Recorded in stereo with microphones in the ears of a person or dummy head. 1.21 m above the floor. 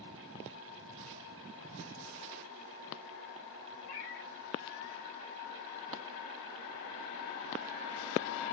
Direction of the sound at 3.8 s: 50° left (ahead or behind).